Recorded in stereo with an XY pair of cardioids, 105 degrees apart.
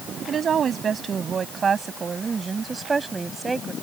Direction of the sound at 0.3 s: 50° right.